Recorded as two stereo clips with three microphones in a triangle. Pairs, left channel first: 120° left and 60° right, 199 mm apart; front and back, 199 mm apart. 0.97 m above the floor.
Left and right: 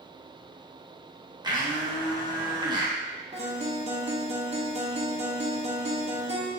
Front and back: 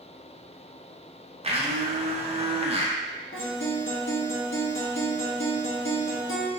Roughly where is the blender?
Behind right.